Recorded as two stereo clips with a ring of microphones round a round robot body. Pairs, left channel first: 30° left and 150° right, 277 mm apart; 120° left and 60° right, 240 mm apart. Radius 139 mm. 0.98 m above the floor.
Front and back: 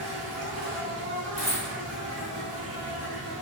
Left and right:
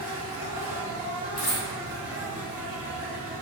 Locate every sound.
0.0 s an insect: 135° right, 0.8 m
1.4 s a dropped coin: 100° left, 1.3 m